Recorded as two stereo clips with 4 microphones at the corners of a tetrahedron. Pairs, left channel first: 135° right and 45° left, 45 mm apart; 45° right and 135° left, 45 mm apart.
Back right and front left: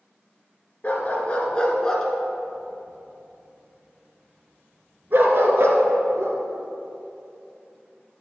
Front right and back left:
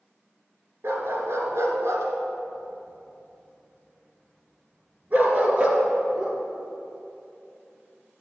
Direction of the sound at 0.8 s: 165° left.